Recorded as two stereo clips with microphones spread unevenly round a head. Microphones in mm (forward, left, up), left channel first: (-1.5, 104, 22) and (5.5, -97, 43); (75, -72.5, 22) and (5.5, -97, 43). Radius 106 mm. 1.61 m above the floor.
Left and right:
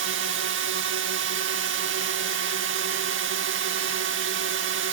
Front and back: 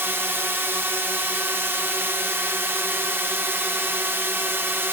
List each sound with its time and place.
0.0 s a drone: 95° right